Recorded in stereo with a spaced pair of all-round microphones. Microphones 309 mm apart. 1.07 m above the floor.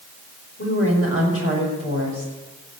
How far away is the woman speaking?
About 4.5 m.